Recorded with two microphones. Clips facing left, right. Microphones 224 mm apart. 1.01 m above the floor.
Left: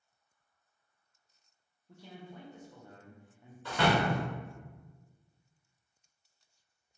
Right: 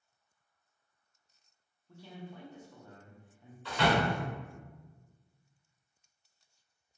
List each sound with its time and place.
1.9 s a man speaking: 15° left (ahead or behind), 0.6 m
3.6 s a door slam: 50° left (ahead or behind), 0.9 m